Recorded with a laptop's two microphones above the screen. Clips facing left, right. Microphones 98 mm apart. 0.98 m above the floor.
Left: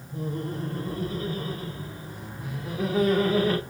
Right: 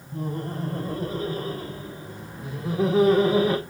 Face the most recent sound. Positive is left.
turn(degrees=-15)  # may be behind; listen again after turning